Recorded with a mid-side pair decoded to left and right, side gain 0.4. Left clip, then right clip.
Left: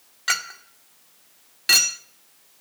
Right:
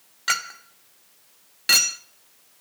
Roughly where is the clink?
Ahead.